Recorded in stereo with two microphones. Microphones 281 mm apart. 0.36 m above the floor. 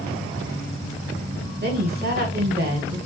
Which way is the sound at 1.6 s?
35° right (ahead or behind).